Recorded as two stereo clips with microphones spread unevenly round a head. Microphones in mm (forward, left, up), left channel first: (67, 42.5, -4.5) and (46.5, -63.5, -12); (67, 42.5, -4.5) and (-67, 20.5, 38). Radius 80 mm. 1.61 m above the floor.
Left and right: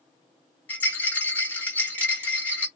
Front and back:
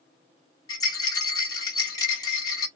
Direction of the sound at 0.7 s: 75° left.